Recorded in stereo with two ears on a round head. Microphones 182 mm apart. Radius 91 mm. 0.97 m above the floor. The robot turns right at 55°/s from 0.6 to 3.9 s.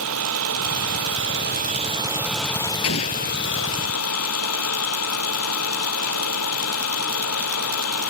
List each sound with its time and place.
0.0 s an engine running: 100° right; by 8.1 s 85° left
2.8 s an explosion: 80° left; by 3.4 s 70° left (ahead or behind)